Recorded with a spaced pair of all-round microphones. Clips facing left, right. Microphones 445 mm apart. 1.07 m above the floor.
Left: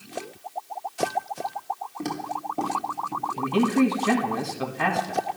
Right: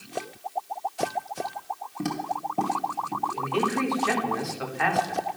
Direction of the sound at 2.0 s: 25° right (ahead or behind).